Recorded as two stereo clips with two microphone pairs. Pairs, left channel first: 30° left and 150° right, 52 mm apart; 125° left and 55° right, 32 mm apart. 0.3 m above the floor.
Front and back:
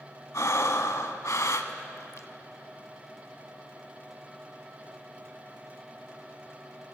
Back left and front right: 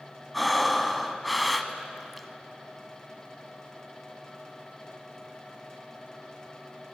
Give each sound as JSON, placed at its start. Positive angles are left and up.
{"t": 0.3, "sound": "breathing", "azimuth_deg": 35, "distance_m": 0.6}